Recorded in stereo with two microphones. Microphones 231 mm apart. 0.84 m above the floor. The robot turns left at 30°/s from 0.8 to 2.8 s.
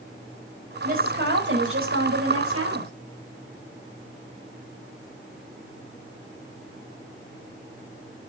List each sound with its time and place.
0.8 s a woman speaking: 35° right, 5 m; by 2.9 s 95° right, 5 m